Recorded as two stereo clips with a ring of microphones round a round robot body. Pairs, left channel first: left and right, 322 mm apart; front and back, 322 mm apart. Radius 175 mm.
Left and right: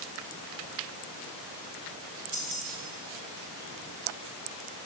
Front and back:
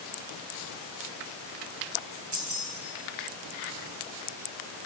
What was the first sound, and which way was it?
Keys jangling, 145° right.